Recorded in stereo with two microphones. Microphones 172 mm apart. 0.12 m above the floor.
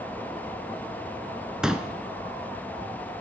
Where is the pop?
5° right (ahead or behind), 0.5 m.